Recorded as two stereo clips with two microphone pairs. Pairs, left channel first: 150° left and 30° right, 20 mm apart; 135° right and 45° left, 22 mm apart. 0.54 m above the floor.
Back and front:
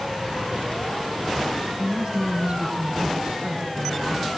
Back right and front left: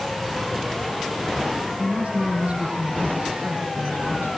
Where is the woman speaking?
10° left, 5.5 m.